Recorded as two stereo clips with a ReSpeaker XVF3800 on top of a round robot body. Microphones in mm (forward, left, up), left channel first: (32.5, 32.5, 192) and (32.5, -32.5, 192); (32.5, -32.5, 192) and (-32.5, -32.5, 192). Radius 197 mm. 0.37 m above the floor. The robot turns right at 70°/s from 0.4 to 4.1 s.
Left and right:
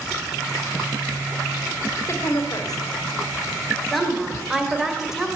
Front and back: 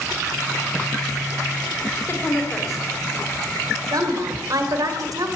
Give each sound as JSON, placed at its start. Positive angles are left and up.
{"t": 2.1, "sound": "a woman speaking", "azimuth_deg": 45, "distance_m": 2.0}